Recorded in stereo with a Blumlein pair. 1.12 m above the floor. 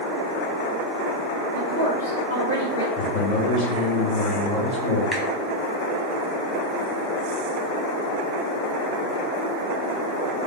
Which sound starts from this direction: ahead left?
A man speaking, at 3.0 s.